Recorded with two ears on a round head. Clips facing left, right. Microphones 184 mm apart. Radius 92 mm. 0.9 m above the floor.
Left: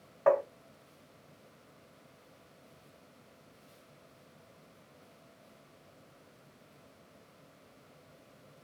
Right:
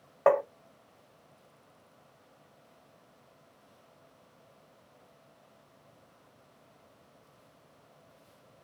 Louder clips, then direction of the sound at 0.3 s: Right 2 dB; 60° right (ahead or behind).